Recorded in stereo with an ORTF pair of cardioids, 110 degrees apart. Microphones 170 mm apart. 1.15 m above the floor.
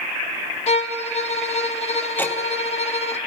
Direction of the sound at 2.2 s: 10° left.